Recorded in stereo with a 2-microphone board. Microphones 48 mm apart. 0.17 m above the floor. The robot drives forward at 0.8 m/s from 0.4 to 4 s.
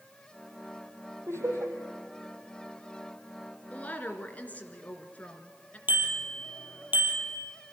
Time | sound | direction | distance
1.3 | laughter | 65° right (ahead or behind) | 5.5 m
3.7 | a woman speaking | 30° left (ahead or behind) | 2.5 m
5.9 | a bicycle bell | 40° right (ahead or behind) | 3.5 m